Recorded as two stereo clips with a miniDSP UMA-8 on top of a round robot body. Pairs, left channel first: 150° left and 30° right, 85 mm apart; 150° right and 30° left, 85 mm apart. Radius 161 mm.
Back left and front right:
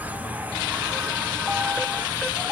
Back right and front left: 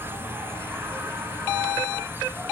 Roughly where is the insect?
Ahead.